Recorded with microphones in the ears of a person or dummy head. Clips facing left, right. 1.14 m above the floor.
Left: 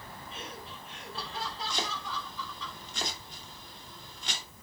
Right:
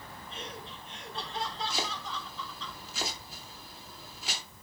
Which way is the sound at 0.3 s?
5° left (ahead or behind).